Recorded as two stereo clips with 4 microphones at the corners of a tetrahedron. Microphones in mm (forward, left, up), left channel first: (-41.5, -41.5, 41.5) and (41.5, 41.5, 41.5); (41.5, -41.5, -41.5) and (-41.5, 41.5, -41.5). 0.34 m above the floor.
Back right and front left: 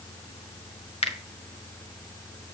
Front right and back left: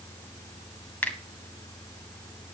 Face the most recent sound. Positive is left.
turn(degrees=-120)